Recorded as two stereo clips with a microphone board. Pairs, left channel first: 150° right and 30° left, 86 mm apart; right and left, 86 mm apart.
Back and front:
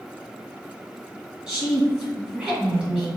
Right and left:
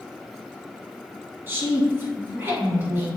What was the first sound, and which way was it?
A woman speaking, 90° left.